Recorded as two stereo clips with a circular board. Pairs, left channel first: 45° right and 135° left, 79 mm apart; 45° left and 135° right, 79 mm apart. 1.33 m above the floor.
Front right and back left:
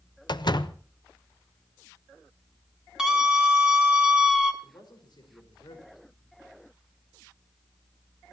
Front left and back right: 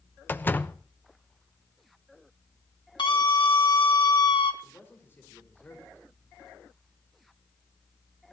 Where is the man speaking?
20° right, 5 m.